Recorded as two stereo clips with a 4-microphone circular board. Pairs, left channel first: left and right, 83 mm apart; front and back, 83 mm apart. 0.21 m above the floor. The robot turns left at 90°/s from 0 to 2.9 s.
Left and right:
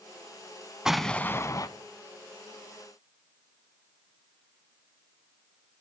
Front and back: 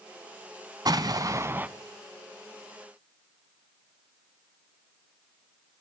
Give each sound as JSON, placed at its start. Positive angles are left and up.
{"t": 0.8, "sound": "an explosion", "azimuth_deg": -170, "distance_m": 0.8}